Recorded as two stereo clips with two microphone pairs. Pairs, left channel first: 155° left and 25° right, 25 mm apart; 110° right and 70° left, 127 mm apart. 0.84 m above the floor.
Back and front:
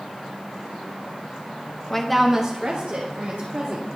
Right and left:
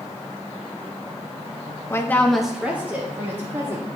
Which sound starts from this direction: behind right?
A woman speaking, at 1.9 s.